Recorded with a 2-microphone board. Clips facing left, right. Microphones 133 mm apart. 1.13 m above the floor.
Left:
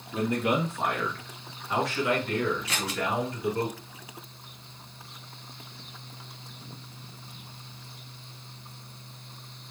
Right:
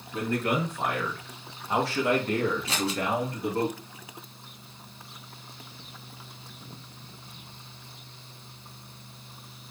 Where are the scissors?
30° right (ahead or behind), 1.0 m.